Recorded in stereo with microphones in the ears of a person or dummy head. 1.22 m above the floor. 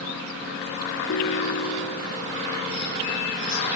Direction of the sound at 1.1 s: 85° left.